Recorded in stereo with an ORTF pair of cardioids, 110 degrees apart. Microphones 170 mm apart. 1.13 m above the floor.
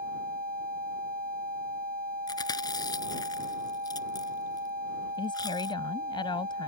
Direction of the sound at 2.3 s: 25° left.